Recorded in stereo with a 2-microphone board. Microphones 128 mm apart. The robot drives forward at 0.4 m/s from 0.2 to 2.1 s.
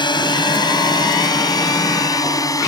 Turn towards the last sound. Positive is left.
turn(degrees=30)  # may be behind; listen again after turning